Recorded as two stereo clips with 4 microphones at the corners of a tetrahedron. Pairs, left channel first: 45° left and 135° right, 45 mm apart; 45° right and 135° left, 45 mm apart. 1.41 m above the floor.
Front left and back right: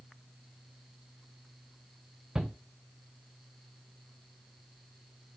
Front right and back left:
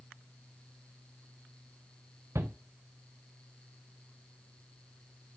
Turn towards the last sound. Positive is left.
turn(degrees=150)